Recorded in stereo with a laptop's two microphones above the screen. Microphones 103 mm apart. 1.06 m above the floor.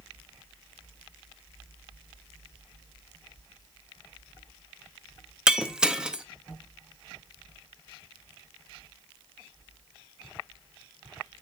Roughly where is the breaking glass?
Centre.